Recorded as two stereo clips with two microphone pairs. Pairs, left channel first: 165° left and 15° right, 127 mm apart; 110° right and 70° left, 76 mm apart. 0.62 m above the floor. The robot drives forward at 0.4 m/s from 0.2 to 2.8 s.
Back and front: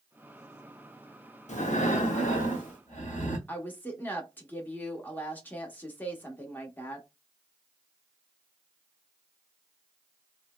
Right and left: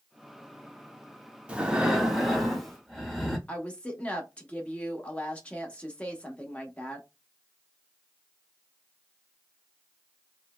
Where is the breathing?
150° left, 0.6 m; by 3.4 s 165° left, 1.0 m.